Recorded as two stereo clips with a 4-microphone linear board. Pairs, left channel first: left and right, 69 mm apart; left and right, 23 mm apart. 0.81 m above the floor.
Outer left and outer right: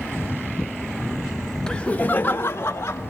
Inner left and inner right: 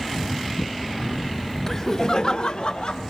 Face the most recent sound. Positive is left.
turn(degrees=35)  # may be behind; listen again after turning